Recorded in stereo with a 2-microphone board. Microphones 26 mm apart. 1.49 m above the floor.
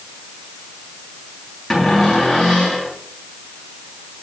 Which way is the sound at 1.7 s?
Centre (ahead or behind).